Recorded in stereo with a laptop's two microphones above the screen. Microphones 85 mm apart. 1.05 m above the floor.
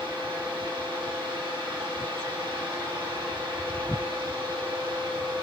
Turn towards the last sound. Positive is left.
turn(degrees=-65)  # may be behind; listen again after turning